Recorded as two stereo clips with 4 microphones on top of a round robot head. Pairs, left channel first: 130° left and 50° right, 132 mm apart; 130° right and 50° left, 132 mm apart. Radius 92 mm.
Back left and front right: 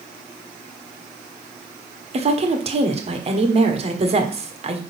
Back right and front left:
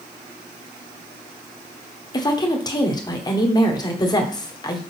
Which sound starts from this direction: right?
A woman speaking, at 2.1 s.